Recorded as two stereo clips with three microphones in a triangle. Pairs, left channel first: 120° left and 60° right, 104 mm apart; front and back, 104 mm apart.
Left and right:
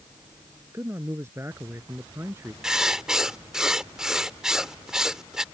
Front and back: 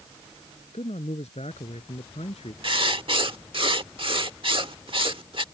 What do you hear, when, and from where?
0.7 s a man speaking: 5° left
2.6 s writing: 145° right